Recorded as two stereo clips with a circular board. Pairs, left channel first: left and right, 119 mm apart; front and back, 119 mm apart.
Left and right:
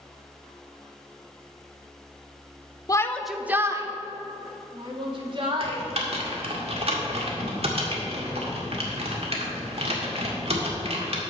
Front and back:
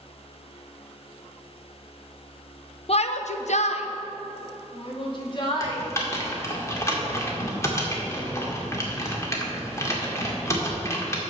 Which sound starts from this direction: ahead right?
Typing on a keyboard, at 5.6 s.